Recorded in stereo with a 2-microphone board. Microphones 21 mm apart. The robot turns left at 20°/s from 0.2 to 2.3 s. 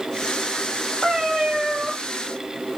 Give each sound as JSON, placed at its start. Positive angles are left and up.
{"t": 1.0, "sound": "a cat meowing", "side_deg": -40, "distance_m": 2.5}